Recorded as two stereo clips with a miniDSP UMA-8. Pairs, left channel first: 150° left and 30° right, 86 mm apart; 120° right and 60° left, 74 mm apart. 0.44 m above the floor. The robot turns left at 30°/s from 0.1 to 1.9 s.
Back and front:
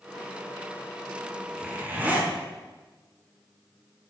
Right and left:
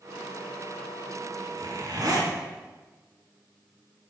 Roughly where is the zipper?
Ahead left.